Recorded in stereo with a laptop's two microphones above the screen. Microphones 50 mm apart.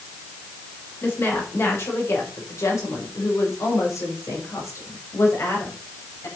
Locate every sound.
1.0 s a woman speaking: 55° left (ahead or behind), 3.5 m; by 6.3 s 70° left (ahead or behind), 5 m